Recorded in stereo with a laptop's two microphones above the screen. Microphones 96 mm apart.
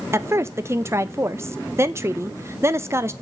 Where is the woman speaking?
30° right (ahead or behind), 0.6 m.